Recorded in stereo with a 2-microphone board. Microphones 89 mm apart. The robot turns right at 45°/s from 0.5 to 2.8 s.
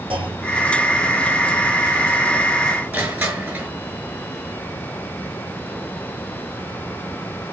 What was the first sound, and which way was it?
A clunk, 80° right.